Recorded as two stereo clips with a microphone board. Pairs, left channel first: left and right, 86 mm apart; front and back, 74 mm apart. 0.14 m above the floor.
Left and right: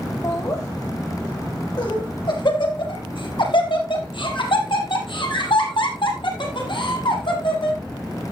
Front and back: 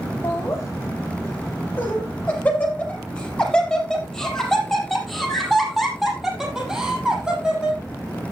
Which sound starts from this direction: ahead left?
Laughter, at 0.2 s.